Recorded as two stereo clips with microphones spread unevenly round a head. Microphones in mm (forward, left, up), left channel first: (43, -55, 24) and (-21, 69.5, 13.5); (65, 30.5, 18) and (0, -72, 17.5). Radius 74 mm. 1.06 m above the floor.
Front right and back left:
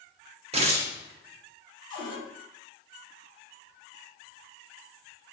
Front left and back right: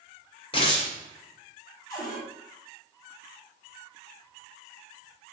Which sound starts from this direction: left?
Tearing paper, at 0.5 s.